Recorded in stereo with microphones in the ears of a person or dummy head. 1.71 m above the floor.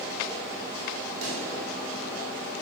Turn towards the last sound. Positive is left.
turn(degrees=-80)